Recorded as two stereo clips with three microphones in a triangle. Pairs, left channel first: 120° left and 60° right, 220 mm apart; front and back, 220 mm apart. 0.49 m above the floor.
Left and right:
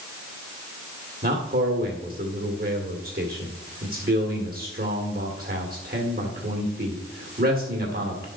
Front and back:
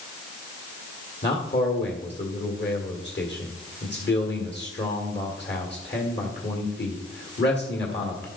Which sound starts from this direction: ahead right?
A man speaking, at 1.2 s.